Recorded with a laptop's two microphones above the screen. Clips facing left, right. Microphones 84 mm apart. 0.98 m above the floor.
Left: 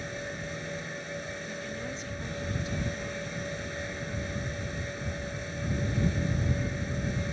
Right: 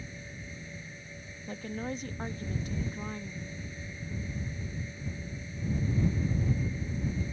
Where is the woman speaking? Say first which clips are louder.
Even; 45° right (ahead or behind).